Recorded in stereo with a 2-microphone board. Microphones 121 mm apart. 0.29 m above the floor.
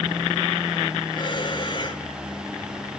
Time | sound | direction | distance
1.1 | breathing | 40° left (ahead or behind) | 2 m